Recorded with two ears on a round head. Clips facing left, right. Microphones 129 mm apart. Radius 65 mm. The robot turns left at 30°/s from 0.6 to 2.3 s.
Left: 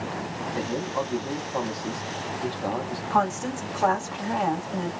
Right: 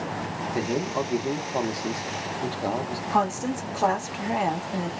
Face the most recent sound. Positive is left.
turn(degrees=-10)  # may be behind; listen again after turning